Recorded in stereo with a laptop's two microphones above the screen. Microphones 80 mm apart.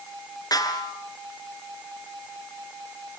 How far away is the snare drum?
About 5.5 m.